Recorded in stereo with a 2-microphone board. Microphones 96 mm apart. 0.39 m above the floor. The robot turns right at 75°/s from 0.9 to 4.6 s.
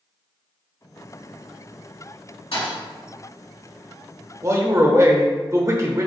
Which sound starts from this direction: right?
A man speaking, at 4.4 s.